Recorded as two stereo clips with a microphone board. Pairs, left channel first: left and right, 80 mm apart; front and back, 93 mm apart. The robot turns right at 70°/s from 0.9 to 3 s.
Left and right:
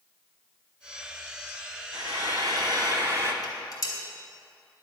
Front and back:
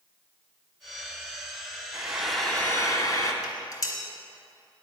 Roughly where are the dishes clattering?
Ahead left.